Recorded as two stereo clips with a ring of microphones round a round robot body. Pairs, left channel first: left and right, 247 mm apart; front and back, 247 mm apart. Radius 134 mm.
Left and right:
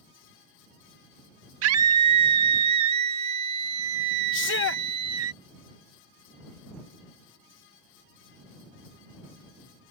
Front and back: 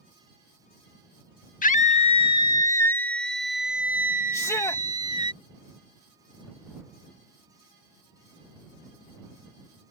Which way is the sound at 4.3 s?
75° left.